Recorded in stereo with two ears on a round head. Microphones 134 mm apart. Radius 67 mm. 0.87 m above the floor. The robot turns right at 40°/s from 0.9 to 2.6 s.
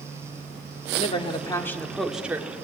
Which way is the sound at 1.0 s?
135° left.